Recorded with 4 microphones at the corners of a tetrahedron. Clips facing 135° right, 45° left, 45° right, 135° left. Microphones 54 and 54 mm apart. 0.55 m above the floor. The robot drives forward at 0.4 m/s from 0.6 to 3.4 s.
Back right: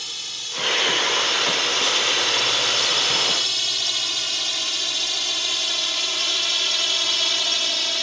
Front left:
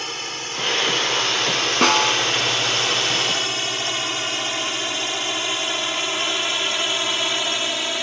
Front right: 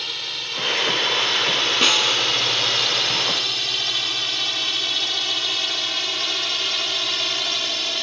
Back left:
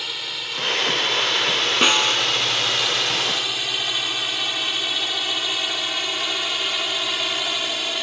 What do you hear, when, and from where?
0.0 s a drone: 55° left; by 8.0 s 75° left
1.8 s a snare drum: 60° left; by 2.2 s 65° left